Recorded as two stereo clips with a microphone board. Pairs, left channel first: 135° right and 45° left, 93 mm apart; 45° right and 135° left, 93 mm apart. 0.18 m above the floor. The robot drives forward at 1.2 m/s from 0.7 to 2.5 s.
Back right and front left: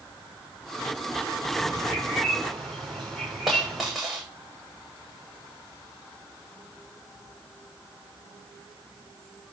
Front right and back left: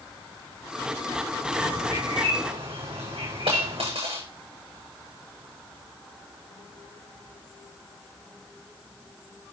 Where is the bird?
140° left, 9 m; by 3.9 s 145° left, 9.5 m.